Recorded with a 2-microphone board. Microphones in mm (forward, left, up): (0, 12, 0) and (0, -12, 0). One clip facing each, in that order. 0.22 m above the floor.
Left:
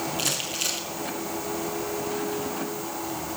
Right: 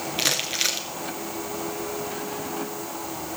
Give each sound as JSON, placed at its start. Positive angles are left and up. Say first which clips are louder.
{"t": 0.2, "sound": "crumpling", "louder": "right 7 dB", "side_deg": -55, "distance_m": 3.0}